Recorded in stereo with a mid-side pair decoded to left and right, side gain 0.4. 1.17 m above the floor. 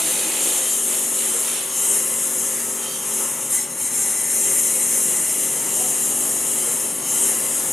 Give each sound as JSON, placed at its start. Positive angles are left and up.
{"t": 0.0, "sound": "a lawn mower", "azimuth_deg": 25}